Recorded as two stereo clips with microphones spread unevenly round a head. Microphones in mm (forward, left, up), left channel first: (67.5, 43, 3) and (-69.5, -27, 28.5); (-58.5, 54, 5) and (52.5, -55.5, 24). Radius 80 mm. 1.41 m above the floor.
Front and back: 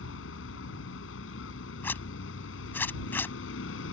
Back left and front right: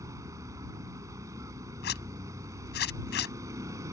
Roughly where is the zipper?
Left.